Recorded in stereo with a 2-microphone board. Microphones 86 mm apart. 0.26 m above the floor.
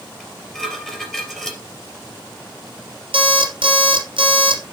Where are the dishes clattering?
5° left (ahead or behind), 3.5 m.